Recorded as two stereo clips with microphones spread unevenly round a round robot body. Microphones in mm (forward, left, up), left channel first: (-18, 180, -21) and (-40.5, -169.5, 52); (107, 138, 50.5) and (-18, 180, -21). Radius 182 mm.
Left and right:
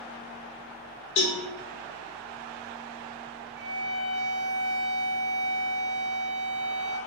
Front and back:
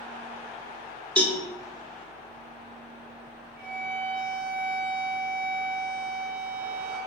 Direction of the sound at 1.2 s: 90° left.